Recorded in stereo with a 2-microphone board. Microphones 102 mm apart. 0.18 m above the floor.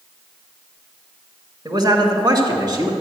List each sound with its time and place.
1.6 s a man speaking: 45° right (ahead or behind), 2.0 m; by 2.9 s 35° right (ahead or behind), 1.8 m